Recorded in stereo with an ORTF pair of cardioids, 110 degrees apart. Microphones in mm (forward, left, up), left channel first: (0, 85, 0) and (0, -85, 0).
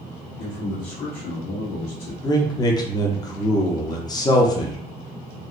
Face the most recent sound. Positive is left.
turn(degrees=25)